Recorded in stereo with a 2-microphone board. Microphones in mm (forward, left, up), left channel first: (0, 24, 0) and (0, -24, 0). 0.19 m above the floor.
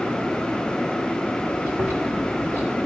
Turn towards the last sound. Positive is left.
turn(degrees=-35)  # may be behind; listen again after turning